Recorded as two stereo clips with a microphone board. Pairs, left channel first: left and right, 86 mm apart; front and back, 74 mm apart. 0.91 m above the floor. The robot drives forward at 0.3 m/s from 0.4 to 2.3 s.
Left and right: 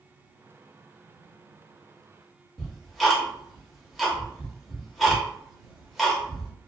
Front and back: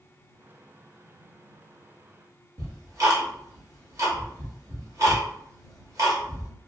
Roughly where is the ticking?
Behind.